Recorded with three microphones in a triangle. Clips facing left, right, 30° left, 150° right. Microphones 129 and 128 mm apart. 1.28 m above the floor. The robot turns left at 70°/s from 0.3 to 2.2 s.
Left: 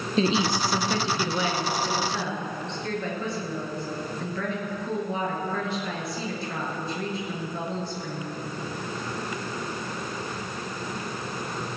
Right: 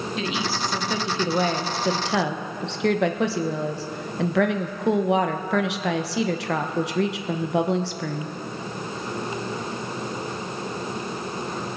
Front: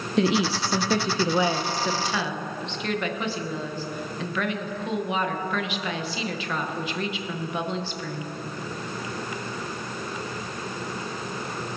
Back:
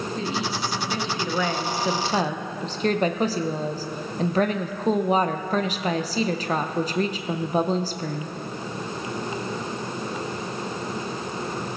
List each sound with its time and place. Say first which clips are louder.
0.2 s a woman speaking: left 7 dB, front 9 dB; 35° left, 0.7 m; by 8.4 s 95° right, 0.7 m